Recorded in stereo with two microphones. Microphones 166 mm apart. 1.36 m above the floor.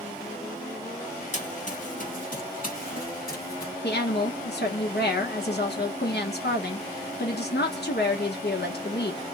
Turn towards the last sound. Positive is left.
turn(degrees=80)